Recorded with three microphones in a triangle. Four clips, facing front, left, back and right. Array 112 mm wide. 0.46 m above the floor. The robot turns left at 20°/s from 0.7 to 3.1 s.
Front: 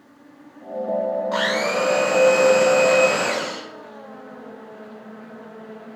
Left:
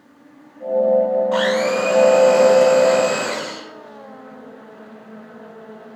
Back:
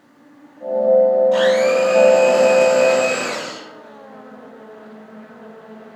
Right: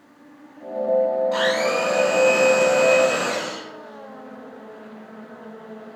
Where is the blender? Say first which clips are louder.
Left 3 dB, back 8 dB; 45° left, 1.0 m; by 3.7 s 10° left, 1.0 m.